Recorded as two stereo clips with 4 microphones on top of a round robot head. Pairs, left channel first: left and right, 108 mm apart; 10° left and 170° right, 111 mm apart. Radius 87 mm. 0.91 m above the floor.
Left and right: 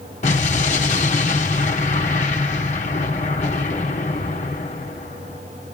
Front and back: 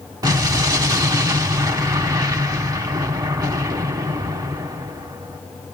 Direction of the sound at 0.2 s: 135° left.